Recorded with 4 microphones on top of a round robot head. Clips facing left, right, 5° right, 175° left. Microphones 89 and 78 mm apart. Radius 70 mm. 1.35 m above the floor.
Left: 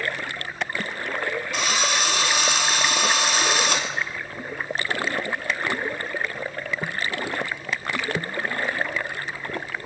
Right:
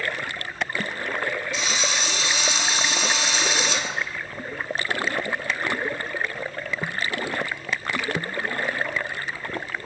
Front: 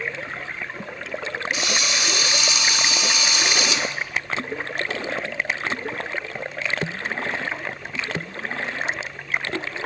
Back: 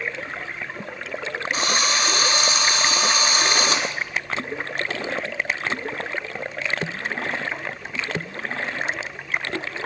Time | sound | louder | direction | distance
1.5 | a drill | left 3 dB, back 6 dB | 125° left | 3.5 m